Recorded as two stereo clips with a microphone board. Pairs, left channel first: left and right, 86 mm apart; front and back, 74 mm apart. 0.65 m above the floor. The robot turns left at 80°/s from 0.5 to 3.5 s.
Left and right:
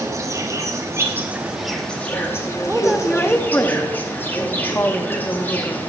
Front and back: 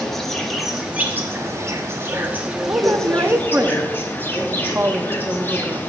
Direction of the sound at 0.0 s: 85° right.